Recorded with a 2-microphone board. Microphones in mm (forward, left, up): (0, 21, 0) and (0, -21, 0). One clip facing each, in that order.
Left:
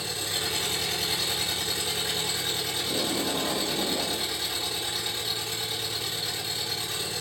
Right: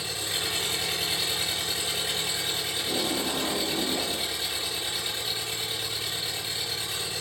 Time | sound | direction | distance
0.0 | an engine running | 15° right (ahead or behind) | 1.6 m
2.8 | tape being pulled | 50° right (ahead or behind) | 1.3 m